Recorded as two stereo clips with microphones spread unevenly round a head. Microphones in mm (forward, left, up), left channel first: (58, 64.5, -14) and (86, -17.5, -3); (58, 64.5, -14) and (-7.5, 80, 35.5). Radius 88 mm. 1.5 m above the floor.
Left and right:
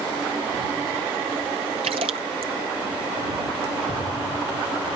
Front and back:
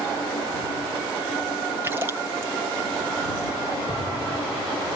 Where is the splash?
120° right.